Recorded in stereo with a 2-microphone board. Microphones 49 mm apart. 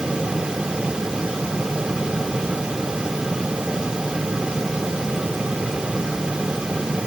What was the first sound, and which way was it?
Only background noise.